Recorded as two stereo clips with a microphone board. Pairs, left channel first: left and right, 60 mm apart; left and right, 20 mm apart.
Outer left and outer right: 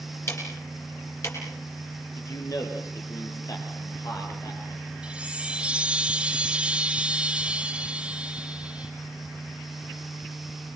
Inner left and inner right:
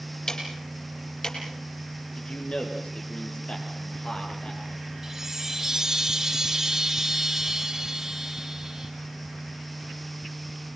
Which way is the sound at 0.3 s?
50° left (ahead or behind).